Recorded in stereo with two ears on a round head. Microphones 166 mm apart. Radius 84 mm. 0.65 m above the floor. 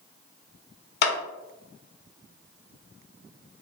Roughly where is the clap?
Left.